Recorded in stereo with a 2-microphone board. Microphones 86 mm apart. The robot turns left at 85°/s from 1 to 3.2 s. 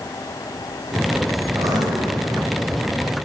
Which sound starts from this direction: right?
Writing, at 1.6 s.